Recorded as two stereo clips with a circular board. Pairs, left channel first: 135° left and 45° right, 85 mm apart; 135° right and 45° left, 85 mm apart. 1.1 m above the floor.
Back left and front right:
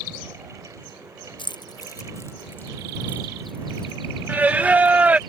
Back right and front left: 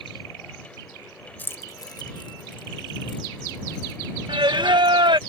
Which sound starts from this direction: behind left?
Keys jangling, at 1.4 s.